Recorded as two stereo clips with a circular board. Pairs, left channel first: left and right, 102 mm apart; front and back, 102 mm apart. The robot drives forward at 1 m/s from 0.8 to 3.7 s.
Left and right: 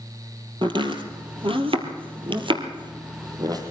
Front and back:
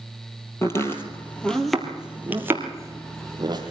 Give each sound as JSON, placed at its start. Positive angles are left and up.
{"t": 0.6, "sound": "chopping", "azimuth_deg": -60, "distance_m": 2.0}